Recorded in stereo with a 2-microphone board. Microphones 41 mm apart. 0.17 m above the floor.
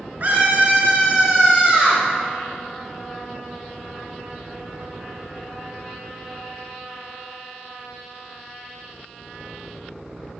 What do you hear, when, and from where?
0.2 s a scream: 45° right (ahead or behind), 1.9 m; by 2.0 s 5° right (ahead or behind), 2 m